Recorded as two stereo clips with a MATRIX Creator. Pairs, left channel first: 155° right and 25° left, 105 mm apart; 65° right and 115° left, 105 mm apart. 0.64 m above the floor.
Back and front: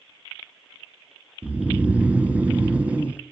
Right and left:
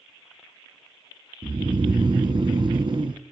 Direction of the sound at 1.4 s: 95° left.